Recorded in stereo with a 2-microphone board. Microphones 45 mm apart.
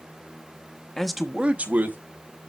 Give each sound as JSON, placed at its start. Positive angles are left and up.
{"t": 1.0, "sound": "a man speaking", "side_deg": 10, "distance_m": 0.8}